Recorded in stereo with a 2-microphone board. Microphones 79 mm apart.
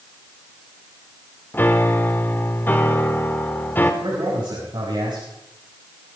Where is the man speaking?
75° right (ahead or behind), 6.5 m.